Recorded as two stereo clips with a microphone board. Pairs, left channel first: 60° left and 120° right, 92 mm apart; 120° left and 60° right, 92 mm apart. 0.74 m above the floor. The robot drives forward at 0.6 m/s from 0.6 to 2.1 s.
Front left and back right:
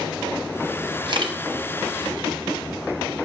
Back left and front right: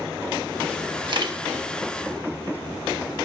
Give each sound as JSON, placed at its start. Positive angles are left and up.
{"t": 1.1, "sound": "a camera shutter", "azimuth_deg": -90, "distance_m": 1.2}